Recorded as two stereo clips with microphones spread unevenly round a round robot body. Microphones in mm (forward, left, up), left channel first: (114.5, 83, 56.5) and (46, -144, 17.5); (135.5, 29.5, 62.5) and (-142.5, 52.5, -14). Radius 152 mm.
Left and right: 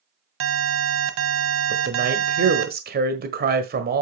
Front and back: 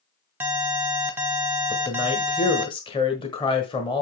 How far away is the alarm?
About 1.3 m.